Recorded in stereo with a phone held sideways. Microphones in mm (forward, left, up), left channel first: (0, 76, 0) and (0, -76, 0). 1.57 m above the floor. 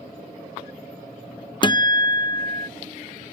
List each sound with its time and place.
1.6 s a guitar: 30° left (ahead or behind)